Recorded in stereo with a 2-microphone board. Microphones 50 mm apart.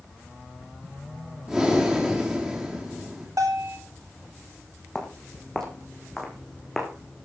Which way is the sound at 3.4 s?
85° right.